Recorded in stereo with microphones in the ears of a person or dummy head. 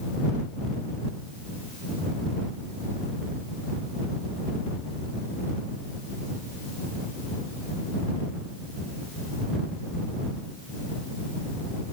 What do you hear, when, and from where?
Only background noise.